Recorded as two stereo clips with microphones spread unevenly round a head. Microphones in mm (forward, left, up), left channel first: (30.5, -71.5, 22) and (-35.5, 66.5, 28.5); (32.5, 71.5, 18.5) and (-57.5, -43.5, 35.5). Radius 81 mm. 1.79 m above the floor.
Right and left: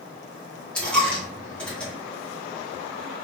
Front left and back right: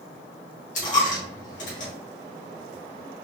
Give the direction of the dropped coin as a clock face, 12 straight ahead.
11 o'clock.